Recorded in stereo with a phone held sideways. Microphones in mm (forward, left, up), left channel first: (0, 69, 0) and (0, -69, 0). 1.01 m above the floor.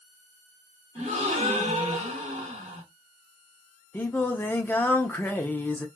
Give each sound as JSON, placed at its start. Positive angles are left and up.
{"t": 0.9, "sound": "a gasp", "side_deg": -50, "distance_m": 1.2}
{"t": 3.9, "sound": "singing", "side_deg": 15, "distance_m": 0.5}